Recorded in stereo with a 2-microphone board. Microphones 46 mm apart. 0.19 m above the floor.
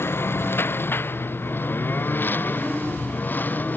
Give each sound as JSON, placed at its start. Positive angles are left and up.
{"t": 0.0, "sound": "a lawn mower", "side_deg": 60}